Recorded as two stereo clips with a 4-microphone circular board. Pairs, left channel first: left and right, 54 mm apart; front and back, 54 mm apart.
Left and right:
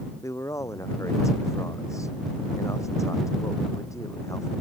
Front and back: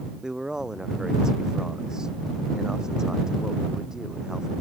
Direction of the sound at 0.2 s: 100° left.